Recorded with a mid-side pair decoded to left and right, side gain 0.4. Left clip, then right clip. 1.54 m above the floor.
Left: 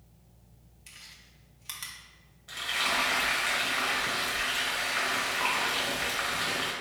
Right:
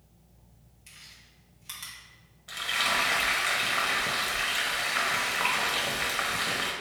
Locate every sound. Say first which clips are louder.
0.9 s chewing: left 1 dB; 30° left, 1.1 m
2.5 s frying: right 2 dB; 30° right, 1.2 m